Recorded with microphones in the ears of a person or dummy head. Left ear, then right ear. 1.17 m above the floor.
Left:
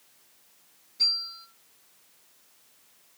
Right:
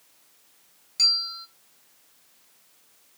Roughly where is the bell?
Right.